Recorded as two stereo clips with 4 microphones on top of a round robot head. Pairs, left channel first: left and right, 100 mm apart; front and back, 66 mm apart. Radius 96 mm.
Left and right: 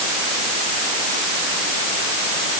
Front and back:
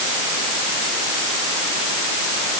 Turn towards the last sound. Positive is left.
No sound to turn to.